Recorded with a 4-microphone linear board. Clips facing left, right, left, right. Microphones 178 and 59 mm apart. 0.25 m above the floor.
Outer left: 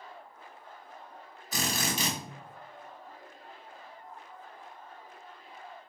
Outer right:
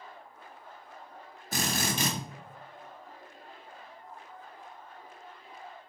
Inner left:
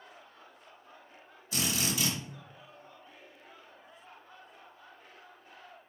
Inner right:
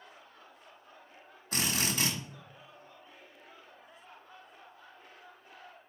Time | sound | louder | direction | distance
1.5 | a drill | outer right 1 dB, even | 50° right (ahead or behind) | 1.3 m